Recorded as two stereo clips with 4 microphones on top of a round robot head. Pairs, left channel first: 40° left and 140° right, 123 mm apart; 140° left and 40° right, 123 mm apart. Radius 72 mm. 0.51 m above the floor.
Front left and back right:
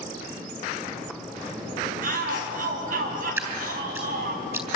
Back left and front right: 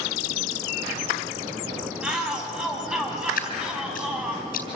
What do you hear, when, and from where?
2.0 s a shout: 125° right, 4.5 m
3.4 s dripping: 150° left, 3.5 m